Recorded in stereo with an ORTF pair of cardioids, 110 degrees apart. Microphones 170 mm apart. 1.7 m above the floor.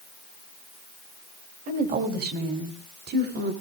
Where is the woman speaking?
60° right, 2.5 m; by 3.5 s 65° right, 4 m.